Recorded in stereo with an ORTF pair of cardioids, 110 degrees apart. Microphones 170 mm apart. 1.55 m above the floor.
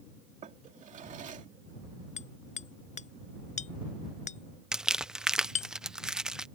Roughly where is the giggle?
No giggle in this recording.